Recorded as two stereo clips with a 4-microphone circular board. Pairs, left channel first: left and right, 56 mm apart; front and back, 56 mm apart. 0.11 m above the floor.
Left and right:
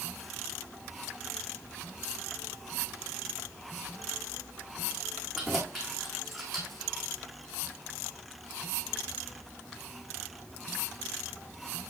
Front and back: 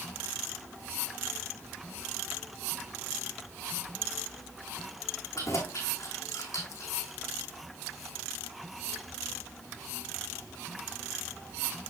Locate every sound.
5.3 s keys jangling: 5° left, 5.5 m; by 6.9 s straight ahead, 3.5 m